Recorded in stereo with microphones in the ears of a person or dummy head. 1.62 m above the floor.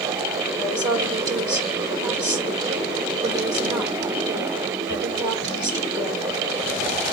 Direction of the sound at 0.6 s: 20° right (ahead or behind).